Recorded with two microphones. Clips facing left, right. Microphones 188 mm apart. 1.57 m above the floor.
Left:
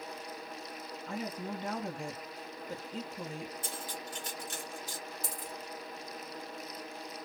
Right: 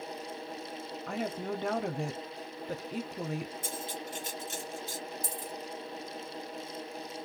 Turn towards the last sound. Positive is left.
turn(degrees=-50)  # may be behind; listen again after turning